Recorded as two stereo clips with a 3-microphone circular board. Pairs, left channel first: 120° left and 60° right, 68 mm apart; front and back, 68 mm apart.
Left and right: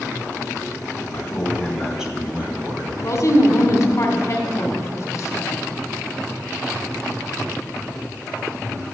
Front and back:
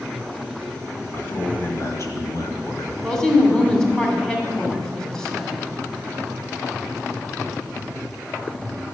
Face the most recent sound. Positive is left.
turn(degrees=80)